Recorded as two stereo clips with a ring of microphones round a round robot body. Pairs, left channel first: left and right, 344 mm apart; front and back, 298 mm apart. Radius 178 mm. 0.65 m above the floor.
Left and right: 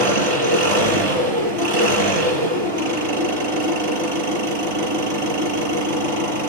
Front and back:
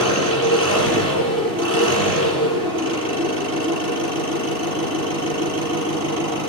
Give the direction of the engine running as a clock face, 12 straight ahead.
3 o'clock.